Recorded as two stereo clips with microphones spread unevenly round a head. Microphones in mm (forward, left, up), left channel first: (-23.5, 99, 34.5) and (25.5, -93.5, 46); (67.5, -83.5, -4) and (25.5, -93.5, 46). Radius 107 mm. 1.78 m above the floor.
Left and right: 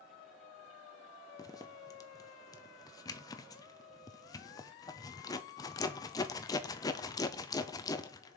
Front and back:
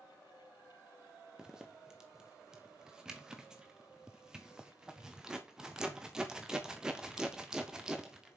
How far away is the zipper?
About 0.6 m.